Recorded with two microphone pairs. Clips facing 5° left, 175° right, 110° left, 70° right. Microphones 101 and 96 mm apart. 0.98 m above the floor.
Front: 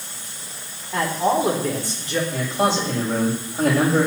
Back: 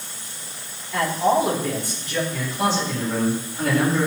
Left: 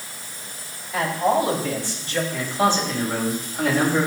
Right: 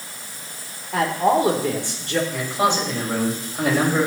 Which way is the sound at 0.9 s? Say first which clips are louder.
Back 1 dB, right 2 dB; 55° right.